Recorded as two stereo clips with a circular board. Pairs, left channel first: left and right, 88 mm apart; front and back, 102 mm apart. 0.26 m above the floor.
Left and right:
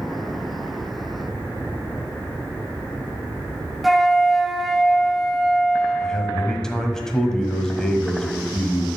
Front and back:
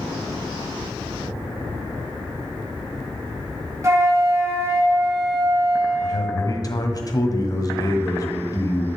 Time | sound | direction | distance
3.8 | a flute | straight behind | 1.5 m
6.0 | a man speaking | 10° left | 1.5 m